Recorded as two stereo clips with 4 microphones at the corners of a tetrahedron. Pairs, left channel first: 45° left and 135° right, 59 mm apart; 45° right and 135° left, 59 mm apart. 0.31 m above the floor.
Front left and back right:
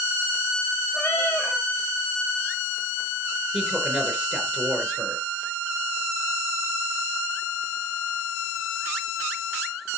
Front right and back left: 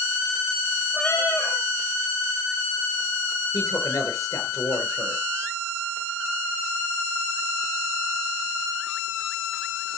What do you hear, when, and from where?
0.9 s a cat meowing: straight ahead, 4 m
3.5 s a man speaking: 50° right, 4 m